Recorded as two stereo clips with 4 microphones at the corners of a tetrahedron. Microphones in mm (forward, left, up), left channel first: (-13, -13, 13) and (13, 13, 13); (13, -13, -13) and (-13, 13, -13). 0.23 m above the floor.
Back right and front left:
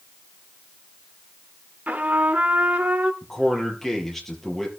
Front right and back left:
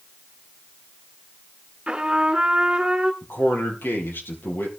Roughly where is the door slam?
I don't hear a door slam.